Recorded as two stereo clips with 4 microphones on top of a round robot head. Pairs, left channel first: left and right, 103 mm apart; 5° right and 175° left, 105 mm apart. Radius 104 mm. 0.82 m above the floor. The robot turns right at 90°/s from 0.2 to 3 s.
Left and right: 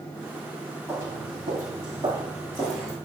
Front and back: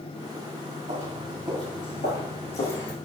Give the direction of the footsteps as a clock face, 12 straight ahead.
5 o'clock.